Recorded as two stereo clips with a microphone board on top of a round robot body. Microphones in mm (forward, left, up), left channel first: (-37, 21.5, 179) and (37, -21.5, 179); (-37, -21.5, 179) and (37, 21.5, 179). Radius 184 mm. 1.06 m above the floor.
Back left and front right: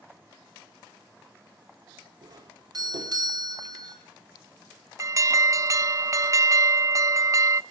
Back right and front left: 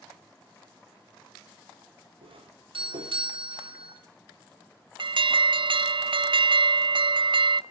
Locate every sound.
2.2 s a doorbell: 15° left, 4.5 m
5.0 s an alarm: 20° left, 0.6 m